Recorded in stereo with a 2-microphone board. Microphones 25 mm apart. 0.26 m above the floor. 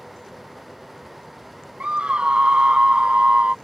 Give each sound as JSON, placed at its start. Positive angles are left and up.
{"t": 1.8, "sound": "a scream", "side_deg": -50}